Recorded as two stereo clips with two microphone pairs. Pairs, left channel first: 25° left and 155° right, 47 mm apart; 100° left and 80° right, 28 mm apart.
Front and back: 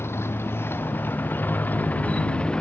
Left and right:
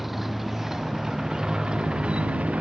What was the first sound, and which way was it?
A motorcycle, 5° left.